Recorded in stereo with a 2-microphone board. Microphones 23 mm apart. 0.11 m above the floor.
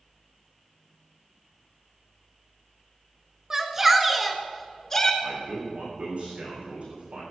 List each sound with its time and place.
3.5 s a shout: 20° right (ahead or behind), 1.5 m; by 5.1 s 20° left (ahead or behind), 1.5 m
5.2 s a man speaking: 60° right (ahead or behind), 6 m